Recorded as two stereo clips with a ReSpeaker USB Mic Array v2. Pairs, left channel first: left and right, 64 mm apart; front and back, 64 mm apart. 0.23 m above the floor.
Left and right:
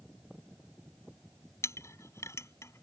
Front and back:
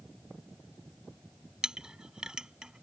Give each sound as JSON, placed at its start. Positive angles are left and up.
{"t": 1.6, "sound": "a clink", "azimuth_deg": 105}